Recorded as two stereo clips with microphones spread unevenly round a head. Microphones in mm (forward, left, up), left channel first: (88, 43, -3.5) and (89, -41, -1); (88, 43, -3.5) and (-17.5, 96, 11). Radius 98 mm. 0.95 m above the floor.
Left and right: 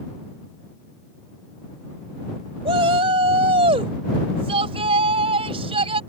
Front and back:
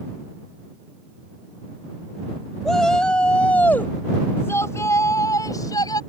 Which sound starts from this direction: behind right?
A shout, at 2.6 s.